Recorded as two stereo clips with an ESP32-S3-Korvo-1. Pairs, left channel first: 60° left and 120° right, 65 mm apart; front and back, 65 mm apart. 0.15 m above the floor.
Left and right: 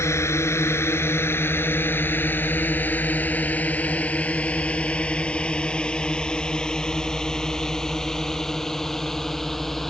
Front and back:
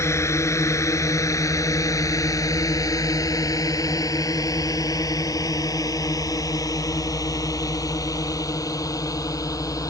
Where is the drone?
30° left; by 9.9 s 25° right.